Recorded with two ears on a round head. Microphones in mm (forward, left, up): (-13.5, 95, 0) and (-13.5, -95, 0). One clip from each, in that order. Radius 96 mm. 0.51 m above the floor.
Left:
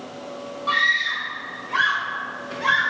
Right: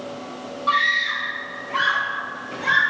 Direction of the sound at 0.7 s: Centre (ahead or behind).